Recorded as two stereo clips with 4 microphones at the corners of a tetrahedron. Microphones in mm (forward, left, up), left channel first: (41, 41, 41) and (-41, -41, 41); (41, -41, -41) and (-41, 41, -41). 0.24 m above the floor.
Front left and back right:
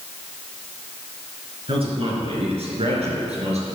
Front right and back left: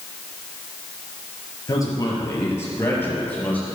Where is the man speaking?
105° right, 4.5 m; by 3.7 s 120° right, 5.5 m.